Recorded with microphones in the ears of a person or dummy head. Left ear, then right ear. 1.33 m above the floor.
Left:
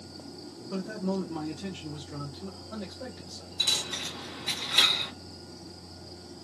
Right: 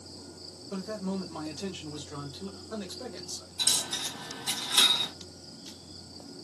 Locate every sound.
0.7 s a man speaking: 15° right (ahead or behind), 0.9 m; by 3.5 s 80° right, 1.4 m
3.6 s a dropped coin: 35° right (ahead or behind), 1.6 m